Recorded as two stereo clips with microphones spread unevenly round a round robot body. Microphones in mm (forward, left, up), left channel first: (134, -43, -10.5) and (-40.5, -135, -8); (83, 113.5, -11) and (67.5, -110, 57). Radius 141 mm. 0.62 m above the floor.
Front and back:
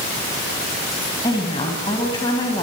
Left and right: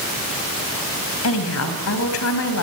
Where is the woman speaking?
105° left, 4.5 m.